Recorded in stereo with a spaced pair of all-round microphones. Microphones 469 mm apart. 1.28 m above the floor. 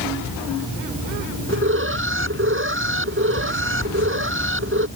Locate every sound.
1.5 s an alarm: 25° right (ahead or behind)